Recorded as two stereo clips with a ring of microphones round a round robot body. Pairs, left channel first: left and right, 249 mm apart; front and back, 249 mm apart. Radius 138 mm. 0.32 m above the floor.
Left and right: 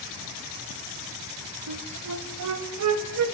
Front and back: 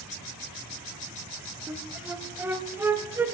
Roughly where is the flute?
Right.